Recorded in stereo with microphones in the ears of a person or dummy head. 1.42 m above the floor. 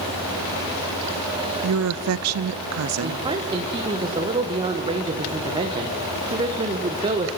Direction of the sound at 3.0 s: 25° right (ahead or behind).